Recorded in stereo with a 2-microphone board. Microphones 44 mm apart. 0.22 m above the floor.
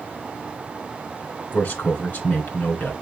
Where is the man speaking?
50° left (ahead or behind), 1.7 m.